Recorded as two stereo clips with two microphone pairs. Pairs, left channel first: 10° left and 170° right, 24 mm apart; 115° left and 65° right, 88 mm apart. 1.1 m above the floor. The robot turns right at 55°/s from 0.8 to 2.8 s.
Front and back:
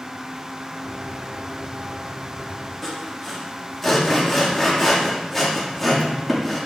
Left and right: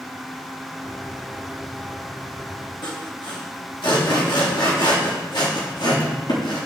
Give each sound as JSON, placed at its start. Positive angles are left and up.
{"t": 2.8, "sound": "sawing", "azimuth_deg": 85, "distance_m": 2.5}